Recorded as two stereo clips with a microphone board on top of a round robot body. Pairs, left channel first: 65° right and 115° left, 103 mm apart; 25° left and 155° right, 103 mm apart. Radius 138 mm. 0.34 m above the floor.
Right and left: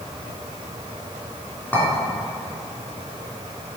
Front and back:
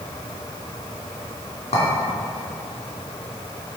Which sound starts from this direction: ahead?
A clink, at 1.7 s.